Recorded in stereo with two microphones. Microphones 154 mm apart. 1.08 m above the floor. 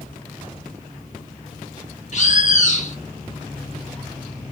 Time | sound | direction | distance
2.1 | a bird | 50° left (ahead or behind) | 0.8 m